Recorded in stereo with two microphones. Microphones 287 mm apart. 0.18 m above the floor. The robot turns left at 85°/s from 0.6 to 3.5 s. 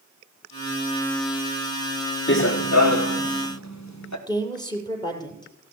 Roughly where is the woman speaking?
Centre.